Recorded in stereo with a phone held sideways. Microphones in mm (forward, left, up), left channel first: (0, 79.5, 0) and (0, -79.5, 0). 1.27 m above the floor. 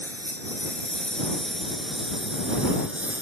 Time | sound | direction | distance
0.0 | a lawn mower | 10° left (ahead or behind) | ?